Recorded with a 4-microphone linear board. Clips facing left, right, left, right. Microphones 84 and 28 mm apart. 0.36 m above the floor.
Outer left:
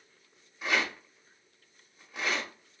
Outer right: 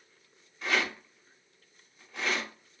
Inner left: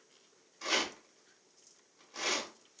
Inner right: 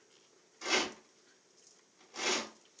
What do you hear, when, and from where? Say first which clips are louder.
0.6 s a rattle: even, even; 10° left (ahead or behind), 1.0 m